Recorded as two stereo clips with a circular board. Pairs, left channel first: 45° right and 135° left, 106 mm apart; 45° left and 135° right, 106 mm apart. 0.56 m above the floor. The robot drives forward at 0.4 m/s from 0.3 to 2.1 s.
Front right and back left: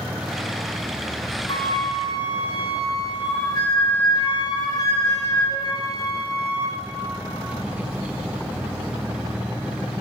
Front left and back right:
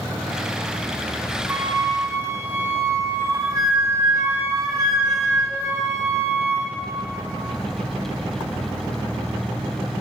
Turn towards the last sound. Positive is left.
turn(degrees=-80)